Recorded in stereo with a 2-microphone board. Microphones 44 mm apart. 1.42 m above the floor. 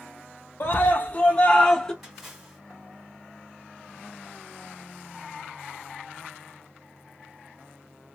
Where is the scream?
50° left (ahead or behind), 0.7 m; by 1.9 s 15° left (ahead or behind), 1.0 m.